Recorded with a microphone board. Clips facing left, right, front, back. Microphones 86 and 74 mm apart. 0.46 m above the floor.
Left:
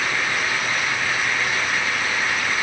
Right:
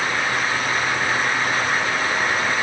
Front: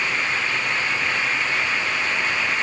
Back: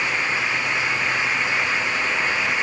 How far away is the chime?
I don't hear a chime.